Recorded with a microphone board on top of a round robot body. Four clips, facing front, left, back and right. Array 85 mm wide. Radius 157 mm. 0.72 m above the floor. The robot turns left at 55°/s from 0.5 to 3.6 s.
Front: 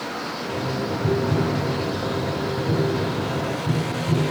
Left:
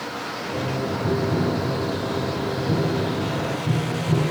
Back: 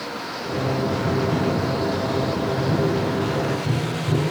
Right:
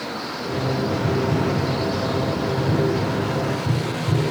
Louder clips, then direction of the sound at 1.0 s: Left 1 dB, front 3 dB; 10° left.